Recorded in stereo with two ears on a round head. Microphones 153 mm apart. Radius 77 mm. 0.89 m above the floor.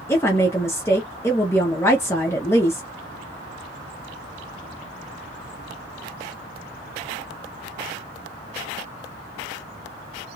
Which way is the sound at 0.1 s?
15° left (ahead or behind).